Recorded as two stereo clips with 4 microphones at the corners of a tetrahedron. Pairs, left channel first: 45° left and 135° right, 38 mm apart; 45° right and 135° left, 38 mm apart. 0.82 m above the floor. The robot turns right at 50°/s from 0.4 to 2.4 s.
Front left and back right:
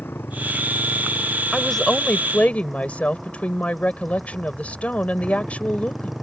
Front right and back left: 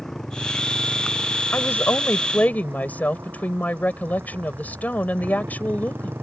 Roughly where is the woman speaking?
Ahead right.